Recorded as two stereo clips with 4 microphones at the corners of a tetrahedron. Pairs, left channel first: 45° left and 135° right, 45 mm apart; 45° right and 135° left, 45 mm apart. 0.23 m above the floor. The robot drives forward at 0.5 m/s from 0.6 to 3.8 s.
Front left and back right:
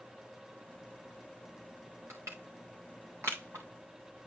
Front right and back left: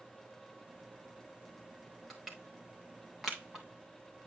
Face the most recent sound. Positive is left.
turn(degrees=-140)